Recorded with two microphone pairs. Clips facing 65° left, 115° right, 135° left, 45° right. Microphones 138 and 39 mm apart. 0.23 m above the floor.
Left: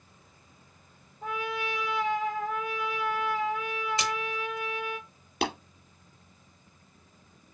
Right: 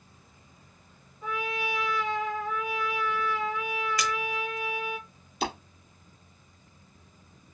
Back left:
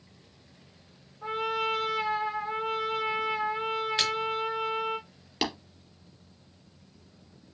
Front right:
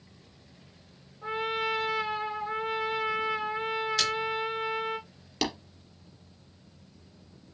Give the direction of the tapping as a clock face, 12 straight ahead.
10 o'clock.